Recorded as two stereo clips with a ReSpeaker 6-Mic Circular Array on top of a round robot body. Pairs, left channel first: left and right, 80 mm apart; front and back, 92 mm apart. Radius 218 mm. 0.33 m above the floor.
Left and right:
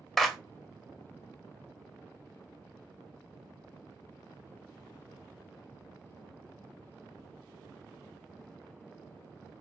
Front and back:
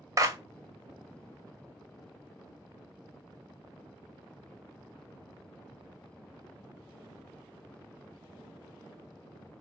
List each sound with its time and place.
0.2 s a clap: straight behind, 0.9 m